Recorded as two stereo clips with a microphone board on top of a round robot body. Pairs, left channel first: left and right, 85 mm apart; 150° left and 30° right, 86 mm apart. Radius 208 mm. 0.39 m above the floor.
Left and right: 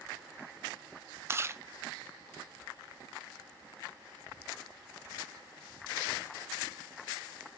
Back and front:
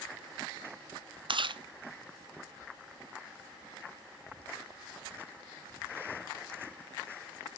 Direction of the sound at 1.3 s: 35° right.